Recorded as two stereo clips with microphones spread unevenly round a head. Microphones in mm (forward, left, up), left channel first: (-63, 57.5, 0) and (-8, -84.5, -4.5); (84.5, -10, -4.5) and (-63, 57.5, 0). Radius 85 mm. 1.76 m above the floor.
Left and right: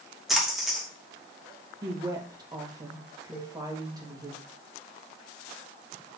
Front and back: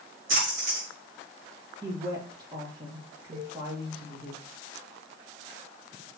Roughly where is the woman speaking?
Behind right.